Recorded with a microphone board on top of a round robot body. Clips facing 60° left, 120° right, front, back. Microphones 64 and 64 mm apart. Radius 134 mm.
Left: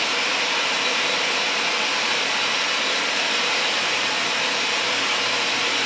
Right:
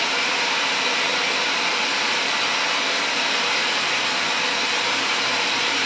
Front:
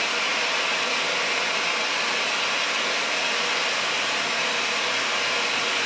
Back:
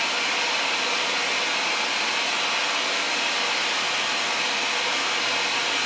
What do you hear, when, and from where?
0.0 s running water: 175° right, 1.2 m